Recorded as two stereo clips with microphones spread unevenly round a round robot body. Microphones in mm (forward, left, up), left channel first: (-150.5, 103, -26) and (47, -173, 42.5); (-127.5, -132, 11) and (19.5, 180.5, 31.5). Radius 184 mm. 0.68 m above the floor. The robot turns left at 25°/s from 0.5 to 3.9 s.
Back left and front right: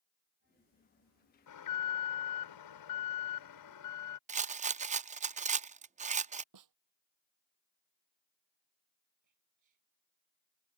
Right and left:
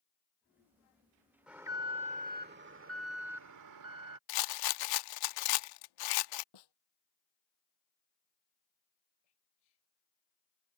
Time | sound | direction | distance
1.5 | an alarm | 155° left | ?
4.3 | a rattle | 130° right | ?
6.5 | a snare drum | 85° right | ?
9.2 | whispering | 90° right | ?